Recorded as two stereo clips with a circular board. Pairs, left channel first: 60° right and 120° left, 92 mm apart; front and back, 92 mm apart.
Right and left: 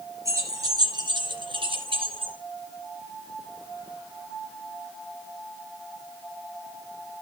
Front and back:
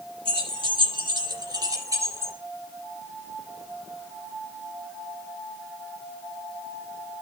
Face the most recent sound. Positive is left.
turn(degrees=120)